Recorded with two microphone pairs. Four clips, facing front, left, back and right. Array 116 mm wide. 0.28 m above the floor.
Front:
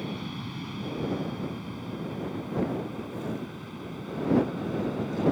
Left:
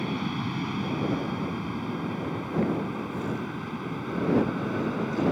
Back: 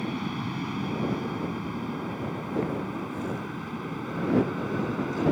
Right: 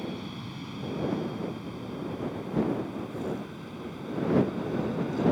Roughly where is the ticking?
I don't hear ticking.